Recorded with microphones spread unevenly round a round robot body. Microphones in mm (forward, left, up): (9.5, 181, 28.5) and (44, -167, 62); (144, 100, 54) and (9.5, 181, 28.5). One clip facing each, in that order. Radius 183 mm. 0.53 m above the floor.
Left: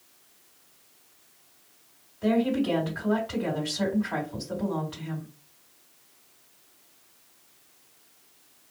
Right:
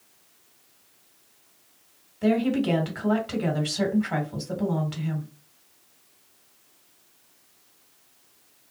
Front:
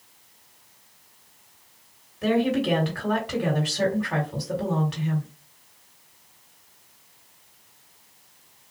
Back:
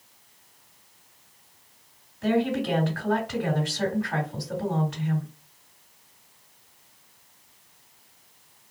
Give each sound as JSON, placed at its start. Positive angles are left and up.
{"t": 2.2, "sound": "a woman speaking", "azimuth_deg": -50, "distance_m": 1.8}